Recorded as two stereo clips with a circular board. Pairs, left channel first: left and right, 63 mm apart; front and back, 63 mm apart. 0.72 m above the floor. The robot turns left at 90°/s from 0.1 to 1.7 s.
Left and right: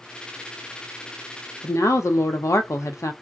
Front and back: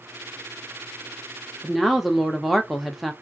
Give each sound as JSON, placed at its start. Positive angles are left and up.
{"t": 1.6, "sound": "a woman speaking", "azimuth_deg": 95, "distance_m": 0.9}